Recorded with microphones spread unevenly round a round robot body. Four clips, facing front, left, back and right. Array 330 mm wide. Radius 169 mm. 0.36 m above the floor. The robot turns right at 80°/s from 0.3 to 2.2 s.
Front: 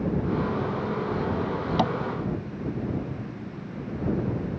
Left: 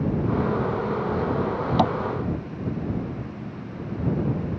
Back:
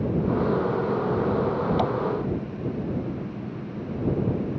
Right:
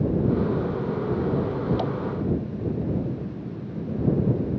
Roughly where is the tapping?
Left.